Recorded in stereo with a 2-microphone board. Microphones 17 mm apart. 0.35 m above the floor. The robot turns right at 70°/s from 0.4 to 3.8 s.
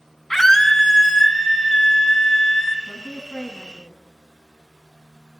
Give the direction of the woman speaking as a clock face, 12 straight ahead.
1 o'clock.